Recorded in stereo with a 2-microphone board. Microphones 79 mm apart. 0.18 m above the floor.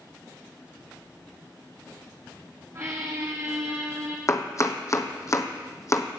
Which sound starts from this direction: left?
Chopping, at 4.3 s.